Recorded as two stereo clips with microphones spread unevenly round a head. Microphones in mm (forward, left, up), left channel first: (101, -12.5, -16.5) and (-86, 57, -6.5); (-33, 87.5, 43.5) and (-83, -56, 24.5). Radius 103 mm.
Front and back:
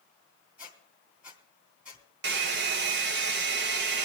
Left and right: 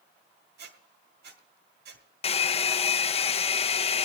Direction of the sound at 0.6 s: 115° right.